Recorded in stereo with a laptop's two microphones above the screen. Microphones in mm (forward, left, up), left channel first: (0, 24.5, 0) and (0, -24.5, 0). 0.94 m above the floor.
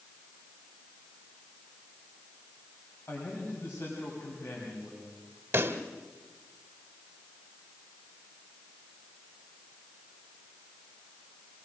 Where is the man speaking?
40° left (ahead or behind), 5.5 m.